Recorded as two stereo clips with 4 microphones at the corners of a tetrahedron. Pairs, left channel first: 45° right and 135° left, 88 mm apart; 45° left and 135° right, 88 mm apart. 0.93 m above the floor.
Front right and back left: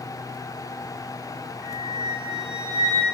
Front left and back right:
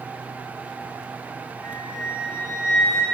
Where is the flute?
155° left, 1.1 m.